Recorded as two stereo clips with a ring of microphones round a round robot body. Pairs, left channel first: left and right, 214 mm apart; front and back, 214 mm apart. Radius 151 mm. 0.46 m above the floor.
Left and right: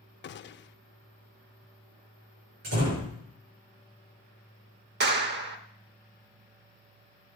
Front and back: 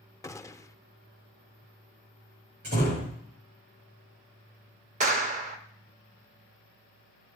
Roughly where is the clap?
Behind right.